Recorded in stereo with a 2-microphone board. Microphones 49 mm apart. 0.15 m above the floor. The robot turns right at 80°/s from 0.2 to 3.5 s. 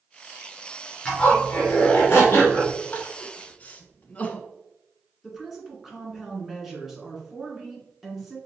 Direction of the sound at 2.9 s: 35° left (ahead or behind).